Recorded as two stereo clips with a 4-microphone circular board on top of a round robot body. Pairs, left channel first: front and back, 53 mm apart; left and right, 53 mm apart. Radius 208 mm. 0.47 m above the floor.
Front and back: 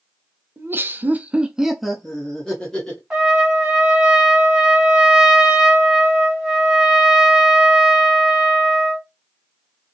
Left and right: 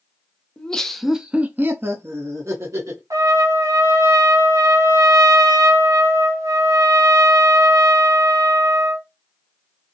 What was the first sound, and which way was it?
Laughter, 155° left.